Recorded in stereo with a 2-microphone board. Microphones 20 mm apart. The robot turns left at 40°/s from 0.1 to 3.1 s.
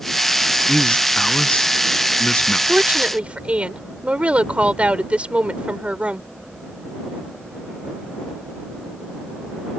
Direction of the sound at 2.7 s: 70° right (ahead or behind).